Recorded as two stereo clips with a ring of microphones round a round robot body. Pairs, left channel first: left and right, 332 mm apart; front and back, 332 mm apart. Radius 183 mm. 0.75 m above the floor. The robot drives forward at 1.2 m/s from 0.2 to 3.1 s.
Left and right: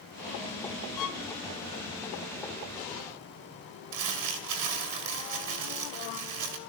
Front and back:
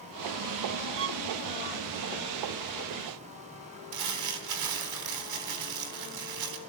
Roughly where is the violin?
Behind left.